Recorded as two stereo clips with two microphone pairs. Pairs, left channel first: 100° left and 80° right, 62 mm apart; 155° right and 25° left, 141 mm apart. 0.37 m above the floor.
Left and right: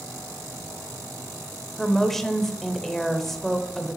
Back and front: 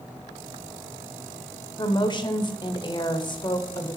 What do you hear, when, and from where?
1.8 s a woman speaking: 175° right, 1.0 m